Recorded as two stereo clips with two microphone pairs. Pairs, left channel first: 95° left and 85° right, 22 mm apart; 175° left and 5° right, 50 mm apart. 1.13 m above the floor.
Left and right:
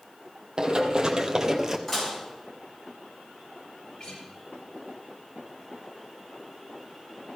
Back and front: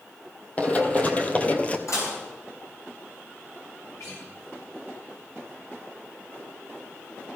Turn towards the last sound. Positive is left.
turn(degrees=155)